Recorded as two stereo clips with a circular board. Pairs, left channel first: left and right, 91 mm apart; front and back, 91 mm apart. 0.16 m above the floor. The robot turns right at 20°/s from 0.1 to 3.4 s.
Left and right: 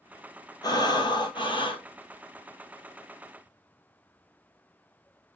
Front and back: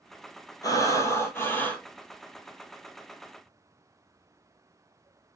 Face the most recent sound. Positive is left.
turn(degrees=105)